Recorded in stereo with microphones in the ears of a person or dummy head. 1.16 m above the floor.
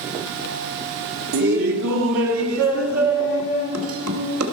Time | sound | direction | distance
1.3 | laughter | 70° right (ahead or behind) | 1.4 m